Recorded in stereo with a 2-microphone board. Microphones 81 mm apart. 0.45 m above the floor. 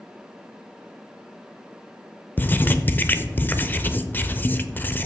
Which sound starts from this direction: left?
Writing, at 2.4 s.